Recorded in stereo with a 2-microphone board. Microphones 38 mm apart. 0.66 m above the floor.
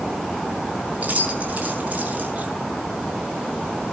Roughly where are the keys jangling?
Right.